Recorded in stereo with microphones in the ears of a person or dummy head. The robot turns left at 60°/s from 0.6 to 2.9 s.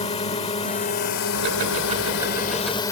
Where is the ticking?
100° right; by 2.8 s 170° left.